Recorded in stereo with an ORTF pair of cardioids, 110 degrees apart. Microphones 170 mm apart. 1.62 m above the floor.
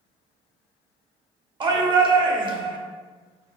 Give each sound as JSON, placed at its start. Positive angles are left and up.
{"t": 1.6, "sound": "a shout", "azimuth_deg": -30, "distance_m": 0.8}